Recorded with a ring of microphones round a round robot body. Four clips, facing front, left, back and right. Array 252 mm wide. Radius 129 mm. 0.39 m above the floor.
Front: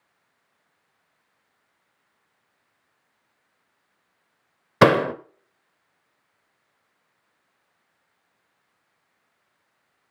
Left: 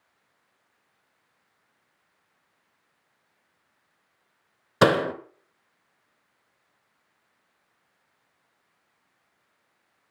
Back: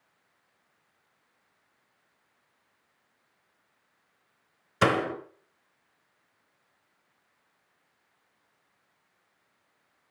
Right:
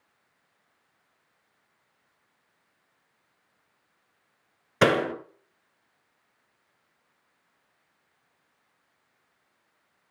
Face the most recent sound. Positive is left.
turn(degrees=10)